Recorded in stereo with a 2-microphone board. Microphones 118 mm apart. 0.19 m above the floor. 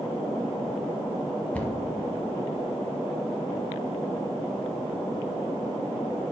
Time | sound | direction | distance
1.5 | a cupboard door | 10° left (ahead or behind) | 1.0 m